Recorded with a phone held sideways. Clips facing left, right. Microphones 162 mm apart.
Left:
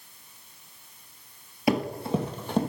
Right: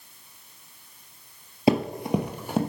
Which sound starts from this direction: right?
Running footsteps, at 1.7 s.